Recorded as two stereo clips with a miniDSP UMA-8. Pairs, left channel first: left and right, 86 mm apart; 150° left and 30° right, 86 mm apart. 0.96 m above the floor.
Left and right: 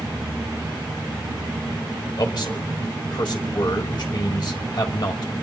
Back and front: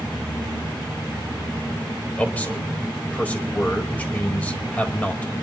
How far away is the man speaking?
About 1.6 m.